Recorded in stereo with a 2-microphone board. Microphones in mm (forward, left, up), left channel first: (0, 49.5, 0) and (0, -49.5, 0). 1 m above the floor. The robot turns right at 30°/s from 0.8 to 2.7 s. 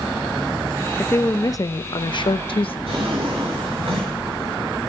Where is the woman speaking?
20° left, 0.5 m; by 2.8 s 75° left, 0.5 m.